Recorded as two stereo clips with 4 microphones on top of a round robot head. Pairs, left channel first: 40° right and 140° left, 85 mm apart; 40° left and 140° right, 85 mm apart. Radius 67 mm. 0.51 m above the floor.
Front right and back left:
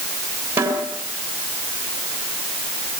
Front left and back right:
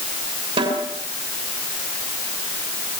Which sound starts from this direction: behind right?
A snare drum, at 0.6 s.